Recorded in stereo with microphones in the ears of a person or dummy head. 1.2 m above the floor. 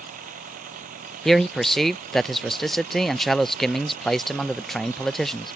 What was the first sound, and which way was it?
A machine running, 40° right (ahead or behind).